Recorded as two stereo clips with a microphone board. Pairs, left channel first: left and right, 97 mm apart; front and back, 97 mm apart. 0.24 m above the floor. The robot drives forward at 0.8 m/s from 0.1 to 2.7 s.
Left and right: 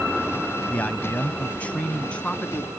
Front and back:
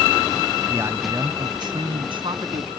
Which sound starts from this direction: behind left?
A man speaking, at 0.7 s.